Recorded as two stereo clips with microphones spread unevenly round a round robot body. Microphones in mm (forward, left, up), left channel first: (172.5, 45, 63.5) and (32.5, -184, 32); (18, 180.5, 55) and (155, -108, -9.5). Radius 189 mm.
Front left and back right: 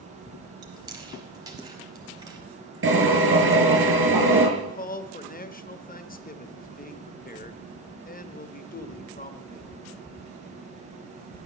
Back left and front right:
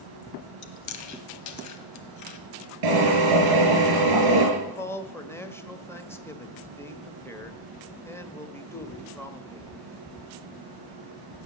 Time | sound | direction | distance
0.6 | chewing | 165° left | 1.1 m
2.8 | a drill | 85° right | 7.5 m
4.6 | a man speaking | 20° left | 1.4 m